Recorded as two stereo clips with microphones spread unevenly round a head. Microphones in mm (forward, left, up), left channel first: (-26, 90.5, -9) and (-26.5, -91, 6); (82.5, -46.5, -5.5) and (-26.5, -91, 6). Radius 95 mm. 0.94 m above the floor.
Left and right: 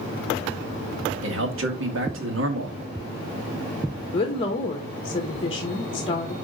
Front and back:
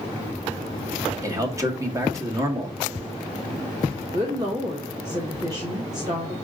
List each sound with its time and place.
1.2 s a man speaking: 95° right, 2.0 m
4.1 s a woman speaking: 140° left, 1.2 m